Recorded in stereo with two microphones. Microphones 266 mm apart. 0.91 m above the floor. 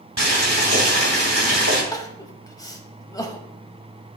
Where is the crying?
15° left (ahead or behind), 0.7 m.